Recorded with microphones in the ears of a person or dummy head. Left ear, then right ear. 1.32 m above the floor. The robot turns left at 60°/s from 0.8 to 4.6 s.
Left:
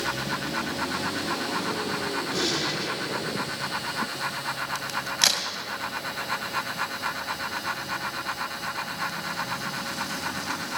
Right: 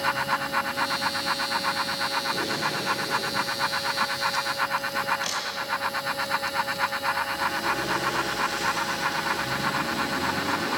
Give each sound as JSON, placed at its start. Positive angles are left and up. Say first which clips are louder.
{"t": 2.3, "sound": "a gunshot", "louder": "even", "azimuth_deg": 60, "distance_m": 4.0}
{"t": 4.8, "sound": "a crack", "louder": "even", "side_deg": 70, "distance_m": 2.5}